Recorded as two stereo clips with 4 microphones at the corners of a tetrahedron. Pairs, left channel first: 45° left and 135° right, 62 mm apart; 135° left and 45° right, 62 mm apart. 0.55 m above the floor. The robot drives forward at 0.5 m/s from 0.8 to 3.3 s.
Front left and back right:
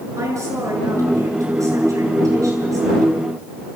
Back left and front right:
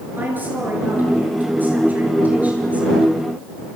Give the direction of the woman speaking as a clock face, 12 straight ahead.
3 o'clock.